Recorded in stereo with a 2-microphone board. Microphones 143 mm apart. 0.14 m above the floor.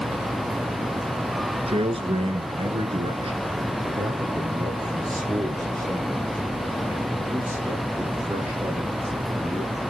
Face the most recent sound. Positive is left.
turn(degrees=-10)  # may be behind; listen again after turning